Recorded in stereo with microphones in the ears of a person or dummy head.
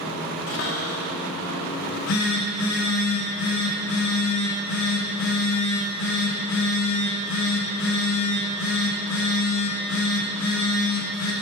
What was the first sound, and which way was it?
A cupboard door, 50° left (ahead or behind).